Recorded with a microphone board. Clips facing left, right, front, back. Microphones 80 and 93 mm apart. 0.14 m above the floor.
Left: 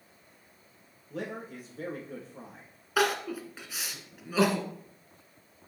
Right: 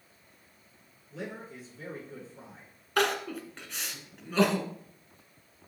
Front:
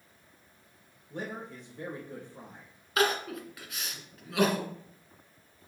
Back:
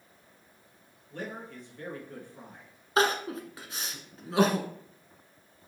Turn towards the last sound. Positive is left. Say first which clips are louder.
# left 1 dB, back 2 dB
turn(degrees=170)